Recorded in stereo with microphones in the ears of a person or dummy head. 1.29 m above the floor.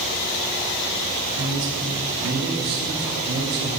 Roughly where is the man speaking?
Right.